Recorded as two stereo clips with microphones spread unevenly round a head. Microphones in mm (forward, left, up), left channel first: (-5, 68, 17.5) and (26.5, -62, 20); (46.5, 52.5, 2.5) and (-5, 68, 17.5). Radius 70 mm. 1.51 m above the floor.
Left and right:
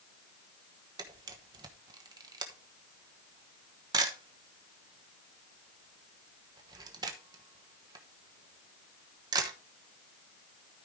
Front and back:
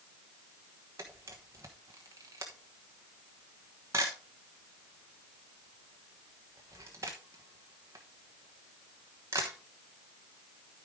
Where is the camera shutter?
140° right, 1.1 m.